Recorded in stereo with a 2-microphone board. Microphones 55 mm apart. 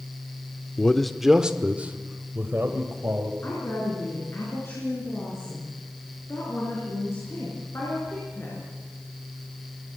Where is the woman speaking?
45° left (ahead or behind), 5.5 m.